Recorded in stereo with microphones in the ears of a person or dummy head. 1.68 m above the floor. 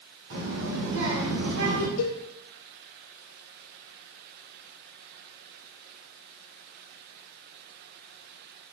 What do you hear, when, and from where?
0.3 s a child speaking: 75° right (ahead or behind), 2.5 m; by 1.9 s 65° right (ahead or behind), 1.4 m
2.0 s a cowbell: 70° left (ahead or behind), 0.9 m